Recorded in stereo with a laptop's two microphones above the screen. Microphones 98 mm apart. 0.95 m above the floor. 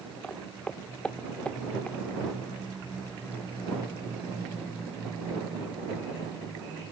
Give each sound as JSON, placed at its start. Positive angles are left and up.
{"t": 0.2, "sound": "footsteps", "side_deg": 10}